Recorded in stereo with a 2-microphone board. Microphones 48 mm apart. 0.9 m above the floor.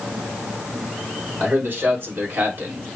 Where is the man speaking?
50° right (ahead or behind), 4 m.